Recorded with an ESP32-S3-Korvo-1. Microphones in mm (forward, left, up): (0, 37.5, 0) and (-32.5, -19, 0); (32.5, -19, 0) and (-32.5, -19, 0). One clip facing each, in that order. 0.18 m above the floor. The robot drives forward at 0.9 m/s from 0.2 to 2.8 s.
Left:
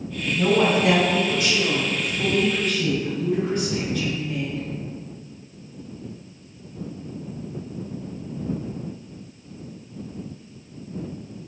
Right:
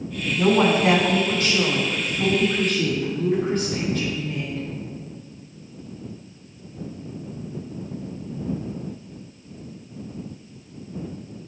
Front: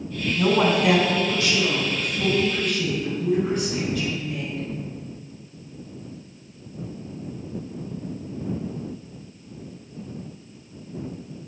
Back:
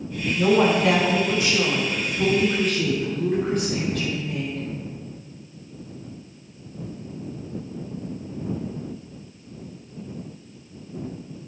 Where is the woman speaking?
55° right, 1.3 m; by 4.6 s 155° right, 2 m.